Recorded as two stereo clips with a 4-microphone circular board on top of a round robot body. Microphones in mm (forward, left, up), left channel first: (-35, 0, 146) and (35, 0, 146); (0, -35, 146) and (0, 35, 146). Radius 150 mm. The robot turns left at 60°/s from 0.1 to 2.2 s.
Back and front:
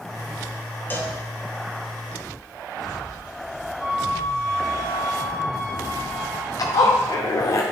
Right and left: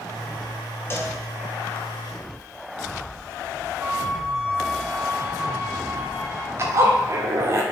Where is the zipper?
140° left, 0.6 m.